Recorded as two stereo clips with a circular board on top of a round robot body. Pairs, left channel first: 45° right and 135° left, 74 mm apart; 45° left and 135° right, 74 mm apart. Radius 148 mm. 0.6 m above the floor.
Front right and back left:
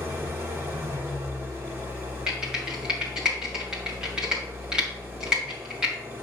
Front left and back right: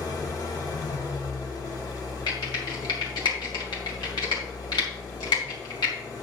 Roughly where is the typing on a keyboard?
Ahead left.